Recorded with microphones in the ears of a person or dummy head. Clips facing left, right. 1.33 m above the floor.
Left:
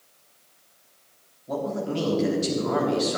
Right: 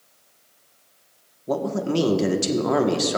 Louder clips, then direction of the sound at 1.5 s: Right 4 dB; 65° right (ahead or behind).